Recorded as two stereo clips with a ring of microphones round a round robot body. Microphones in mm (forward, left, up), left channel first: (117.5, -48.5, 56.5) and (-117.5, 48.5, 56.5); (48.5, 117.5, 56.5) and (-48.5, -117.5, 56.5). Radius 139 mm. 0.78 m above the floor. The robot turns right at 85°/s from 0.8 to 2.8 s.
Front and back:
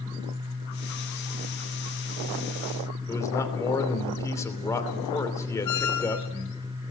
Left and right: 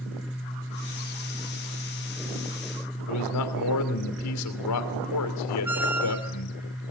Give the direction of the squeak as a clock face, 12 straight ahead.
1 o'clock.